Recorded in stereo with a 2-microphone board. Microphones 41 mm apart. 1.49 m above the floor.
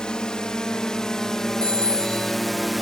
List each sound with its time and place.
0.0 s a drone: 20° left (ahead or behind); by 2.8 s centre (ahead or behind)
1.6 s a phone ringing: 20° left (ahead or behind)